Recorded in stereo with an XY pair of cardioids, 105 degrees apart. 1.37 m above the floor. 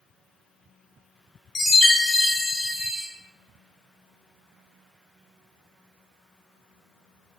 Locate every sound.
1.6 s a chime: 40° left, 0.8 m